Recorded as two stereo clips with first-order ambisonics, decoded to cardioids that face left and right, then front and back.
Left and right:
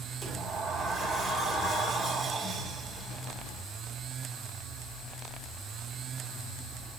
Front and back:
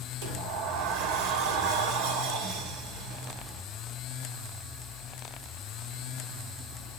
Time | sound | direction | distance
0.2 | a sliding door | 175° right | 2.5 m